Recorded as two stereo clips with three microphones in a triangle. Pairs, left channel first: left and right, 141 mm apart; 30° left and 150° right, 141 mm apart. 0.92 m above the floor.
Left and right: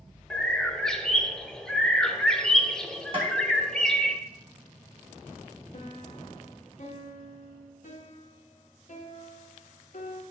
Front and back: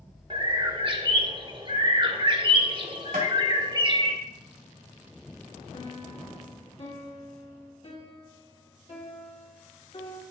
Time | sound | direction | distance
0.3 | a bird | 175° left | 0.7 m
3.1 | tapping | 140° right | 2.5 m
5.7 | a piano | 70° left | 1.5 m